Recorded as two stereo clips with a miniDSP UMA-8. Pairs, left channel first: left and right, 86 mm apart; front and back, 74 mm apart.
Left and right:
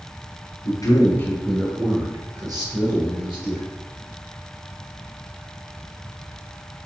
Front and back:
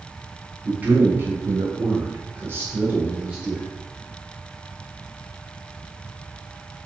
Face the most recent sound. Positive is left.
turn(degrees=-110)